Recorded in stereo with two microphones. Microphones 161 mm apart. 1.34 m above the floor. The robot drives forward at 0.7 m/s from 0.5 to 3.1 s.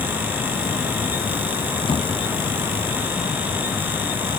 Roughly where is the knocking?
Left.